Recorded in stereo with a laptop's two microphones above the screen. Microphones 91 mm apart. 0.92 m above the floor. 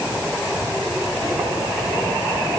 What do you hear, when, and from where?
Only background noise.